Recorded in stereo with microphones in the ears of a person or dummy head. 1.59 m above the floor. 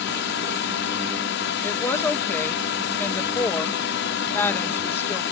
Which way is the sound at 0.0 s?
55° left (ahead or behind).